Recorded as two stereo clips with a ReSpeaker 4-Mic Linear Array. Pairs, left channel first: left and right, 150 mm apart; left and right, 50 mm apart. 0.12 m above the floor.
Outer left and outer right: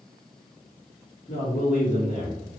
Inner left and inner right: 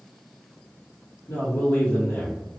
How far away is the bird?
No bird in this recording.